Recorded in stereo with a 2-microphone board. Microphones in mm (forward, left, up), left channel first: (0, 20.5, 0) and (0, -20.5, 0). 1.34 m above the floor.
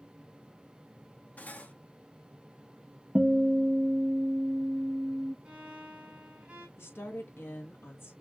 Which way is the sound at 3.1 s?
20° right (ahead or behind).